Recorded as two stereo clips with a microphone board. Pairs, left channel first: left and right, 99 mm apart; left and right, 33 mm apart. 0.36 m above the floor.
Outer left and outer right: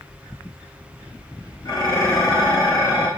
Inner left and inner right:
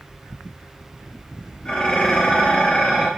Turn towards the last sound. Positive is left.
turn(degrees=40)  # may be behind; listen again after turning